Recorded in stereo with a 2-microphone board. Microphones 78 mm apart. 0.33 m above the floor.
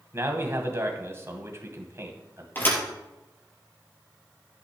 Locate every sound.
0.1 s a man speaking: 35° right (ahead or behind), 2 m
2.5 s a thud: 25° left (ahead or behind), 3.5 m